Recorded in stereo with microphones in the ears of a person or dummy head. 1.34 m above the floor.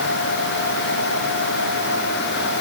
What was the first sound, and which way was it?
Only background noise.